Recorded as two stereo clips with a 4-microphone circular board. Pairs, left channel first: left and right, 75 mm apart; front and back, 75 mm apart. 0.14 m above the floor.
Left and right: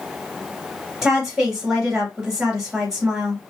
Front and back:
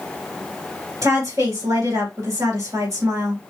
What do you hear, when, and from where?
1.0 s a woman speaking: 170° right, 2 m